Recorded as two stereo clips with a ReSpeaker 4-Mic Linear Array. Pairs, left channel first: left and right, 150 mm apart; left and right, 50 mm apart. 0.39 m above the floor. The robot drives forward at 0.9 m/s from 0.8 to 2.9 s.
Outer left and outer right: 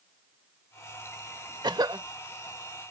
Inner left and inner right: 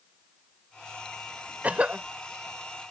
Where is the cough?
30° right (ahead or behind); by 2.1 s 25° right (ahead or behind).